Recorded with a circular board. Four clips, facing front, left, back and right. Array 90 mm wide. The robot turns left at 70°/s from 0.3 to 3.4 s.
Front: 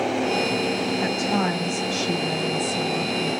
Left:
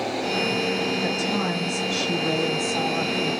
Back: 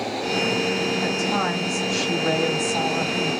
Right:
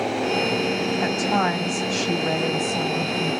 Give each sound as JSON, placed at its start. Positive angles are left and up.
{"t": 1.0, "sound": "a woman speaking", "azimuth_deg": -65, "distance_m": 1.6}